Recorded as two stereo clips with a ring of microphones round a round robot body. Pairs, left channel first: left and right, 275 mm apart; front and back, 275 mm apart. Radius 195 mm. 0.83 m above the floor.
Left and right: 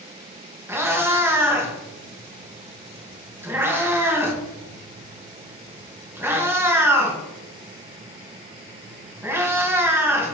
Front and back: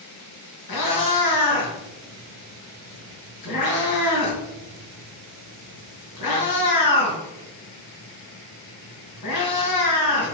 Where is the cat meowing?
10° right, 2 m.